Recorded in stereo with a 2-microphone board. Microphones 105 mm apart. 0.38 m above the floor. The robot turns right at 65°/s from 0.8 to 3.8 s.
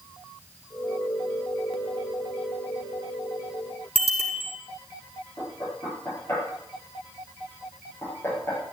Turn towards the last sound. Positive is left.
turn(degrees=25)  # may be behind; listen again after turning